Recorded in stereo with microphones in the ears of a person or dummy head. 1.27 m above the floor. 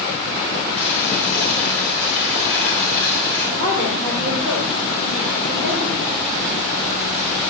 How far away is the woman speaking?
About 4.5 m.